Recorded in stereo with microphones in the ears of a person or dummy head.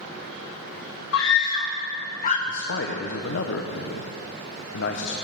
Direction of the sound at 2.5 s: 70° left (ahead or behind).